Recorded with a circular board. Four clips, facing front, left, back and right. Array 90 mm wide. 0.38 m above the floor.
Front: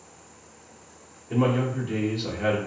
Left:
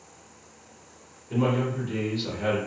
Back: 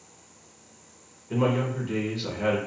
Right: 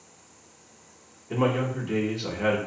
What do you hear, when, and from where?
1.3 s a man speaking: 100° right, 0.9 m